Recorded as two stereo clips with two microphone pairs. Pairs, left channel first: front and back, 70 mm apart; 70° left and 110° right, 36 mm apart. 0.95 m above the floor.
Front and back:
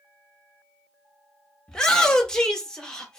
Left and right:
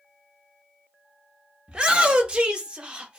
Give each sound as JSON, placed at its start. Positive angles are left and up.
{"t": 1.7, "sound": "a shout", "azimuth_deg": -75, "distance_m": 0.7}